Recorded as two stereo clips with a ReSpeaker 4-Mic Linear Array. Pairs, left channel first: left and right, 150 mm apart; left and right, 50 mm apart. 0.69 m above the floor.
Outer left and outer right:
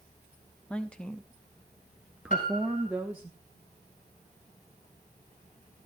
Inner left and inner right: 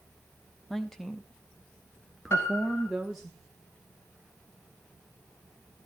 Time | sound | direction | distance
0.7 | a woman speaking | 5° left (ahead or behind) | 1.4 m
2.3 | a piano | 60° left (ahead or behind) | 5 m